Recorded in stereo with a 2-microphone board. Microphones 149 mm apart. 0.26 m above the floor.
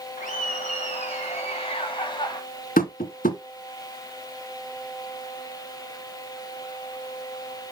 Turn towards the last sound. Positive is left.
turn(degrees=70)  # may be behind; listen again after turning